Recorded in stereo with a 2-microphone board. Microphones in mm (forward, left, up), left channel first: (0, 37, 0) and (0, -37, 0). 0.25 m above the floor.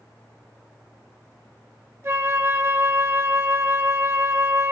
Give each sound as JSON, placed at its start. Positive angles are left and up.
{"t": 2.0, "sound": "a flute", "side_deg": -35, "distance_m": 0.5}